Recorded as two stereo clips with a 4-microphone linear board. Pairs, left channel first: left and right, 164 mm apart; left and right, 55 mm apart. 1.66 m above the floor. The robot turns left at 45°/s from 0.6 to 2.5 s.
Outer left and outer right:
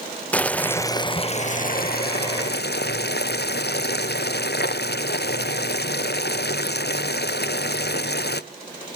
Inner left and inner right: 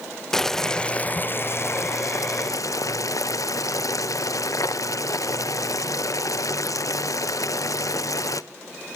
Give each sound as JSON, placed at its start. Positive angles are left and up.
{"t": 0.3, "sound": "boiling", "azimuth_deg": 170, "distance_m": 0.6}